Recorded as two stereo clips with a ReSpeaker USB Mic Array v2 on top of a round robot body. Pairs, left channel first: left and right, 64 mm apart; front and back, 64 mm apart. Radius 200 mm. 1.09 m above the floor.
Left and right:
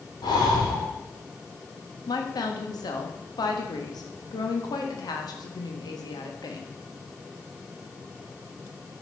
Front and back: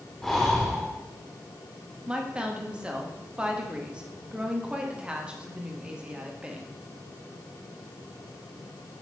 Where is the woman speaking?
105° left, 1.7 m.